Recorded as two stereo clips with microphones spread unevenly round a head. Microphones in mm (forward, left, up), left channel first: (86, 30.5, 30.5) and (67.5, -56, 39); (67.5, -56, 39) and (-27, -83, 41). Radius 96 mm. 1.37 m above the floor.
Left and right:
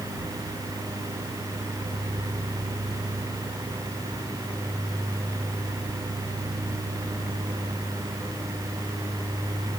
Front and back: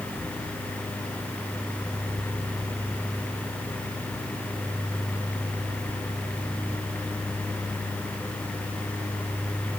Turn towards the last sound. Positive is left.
No sound to turn to.